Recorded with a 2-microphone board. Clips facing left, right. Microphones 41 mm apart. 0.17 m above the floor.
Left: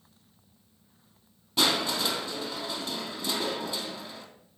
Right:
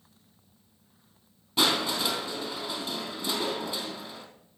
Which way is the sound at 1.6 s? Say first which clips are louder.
Even; 5° right (ahead or behind).